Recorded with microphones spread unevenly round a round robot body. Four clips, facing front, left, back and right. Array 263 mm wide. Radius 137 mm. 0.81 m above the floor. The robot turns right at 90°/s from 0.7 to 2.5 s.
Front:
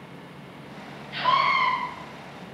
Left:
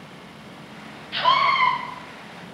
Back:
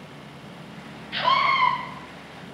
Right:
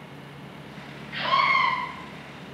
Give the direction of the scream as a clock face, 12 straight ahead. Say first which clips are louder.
Left 4 dB, back 1 dB; 8 o'clock.